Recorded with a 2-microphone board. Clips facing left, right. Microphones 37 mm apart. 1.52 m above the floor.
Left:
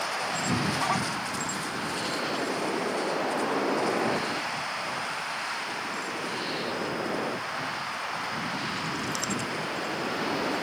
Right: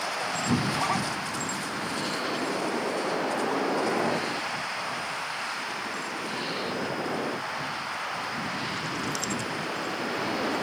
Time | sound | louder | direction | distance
0.5 | a cupboard door | right 1 dB | 70° right (ahead or behind) | ?